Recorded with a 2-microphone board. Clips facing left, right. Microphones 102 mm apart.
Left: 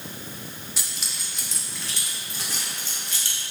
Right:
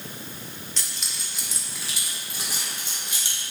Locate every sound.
0.8 s keys jangling: 10° left (ahead or behind), 1.2 m; by 3.4 s 20° right (ahead or behind), 2.5 m